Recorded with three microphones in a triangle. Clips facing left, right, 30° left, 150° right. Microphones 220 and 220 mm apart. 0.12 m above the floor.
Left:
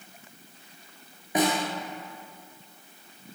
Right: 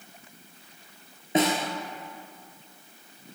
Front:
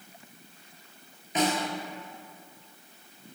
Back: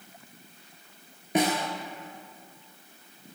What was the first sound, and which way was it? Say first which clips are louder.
A snare drum: right 1 dB, back 2 dB; 155° right.